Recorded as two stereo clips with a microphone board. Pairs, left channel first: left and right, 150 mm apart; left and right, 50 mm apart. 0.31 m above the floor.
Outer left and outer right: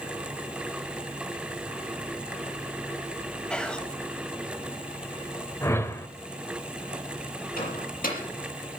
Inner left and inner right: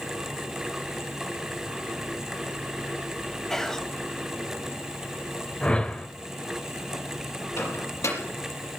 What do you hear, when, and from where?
3.5 s whispering: 5° left (ahead or behind), 1.4 m
5.6 s a whoosh: 20° left (ahead or behind), 1.0 m
7.6 s a microwave: 75° left (ahead or behind), 5.5 m